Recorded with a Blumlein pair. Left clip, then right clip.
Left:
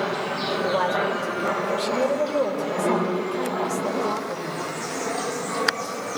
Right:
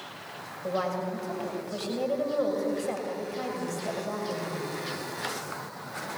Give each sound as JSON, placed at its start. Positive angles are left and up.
{"t": 0.6, "sound": "a woman speaking", "azimuth_deg": 40, "distance_m": 5.0}